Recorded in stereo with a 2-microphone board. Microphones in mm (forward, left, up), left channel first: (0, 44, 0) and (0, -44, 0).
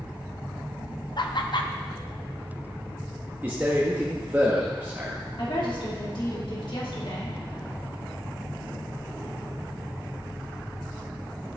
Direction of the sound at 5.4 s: 65° left (ahead or behind).